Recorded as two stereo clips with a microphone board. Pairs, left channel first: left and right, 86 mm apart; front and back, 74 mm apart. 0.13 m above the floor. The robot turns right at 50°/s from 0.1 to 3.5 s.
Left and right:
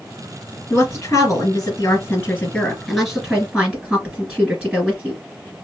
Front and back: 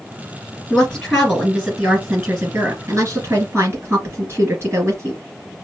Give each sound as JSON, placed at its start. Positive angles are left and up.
{"t": 0.7, "sound": "a woman speaking", "azimuth_deg": 45, "distance_m": 1.8}